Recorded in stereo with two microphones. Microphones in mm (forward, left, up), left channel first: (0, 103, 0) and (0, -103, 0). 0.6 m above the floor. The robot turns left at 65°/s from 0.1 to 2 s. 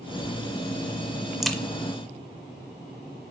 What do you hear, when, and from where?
1.4 s a crack: centre (ahead or behind), 0.5 m; by 1.6 s 5° left (ahead or behind), 0.5 m